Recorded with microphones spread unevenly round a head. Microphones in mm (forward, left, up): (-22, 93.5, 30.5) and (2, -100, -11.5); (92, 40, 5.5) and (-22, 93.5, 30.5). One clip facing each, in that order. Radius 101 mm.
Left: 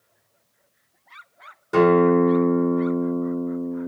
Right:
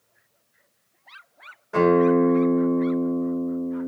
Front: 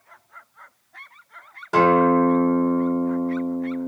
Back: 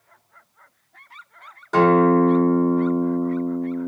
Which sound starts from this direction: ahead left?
A guitar, at 1.7 s.